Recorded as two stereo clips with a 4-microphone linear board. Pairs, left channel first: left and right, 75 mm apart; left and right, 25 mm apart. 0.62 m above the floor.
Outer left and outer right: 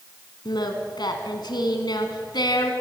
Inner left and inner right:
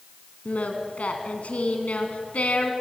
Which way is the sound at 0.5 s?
75° left (ahead or behind).